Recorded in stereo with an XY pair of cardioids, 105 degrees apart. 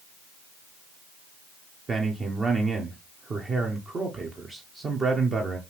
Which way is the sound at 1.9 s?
35° right.